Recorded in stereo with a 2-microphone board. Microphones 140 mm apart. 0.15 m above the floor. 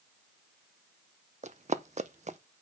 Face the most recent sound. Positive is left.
turn(degrees=-60)  # may be behind; listen again after turning